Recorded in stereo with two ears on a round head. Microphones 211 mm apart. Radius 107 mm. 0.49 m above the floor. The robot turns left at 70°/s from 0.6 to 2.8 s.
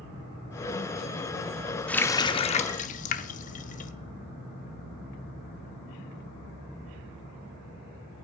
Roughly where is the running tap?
Centre.